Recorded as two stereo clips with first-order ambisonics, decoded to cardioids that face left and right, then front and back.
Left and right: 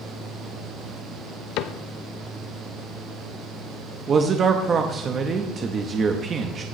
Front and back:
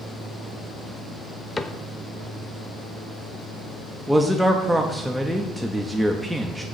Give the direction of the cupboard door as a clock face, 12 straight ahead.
9 o'clock.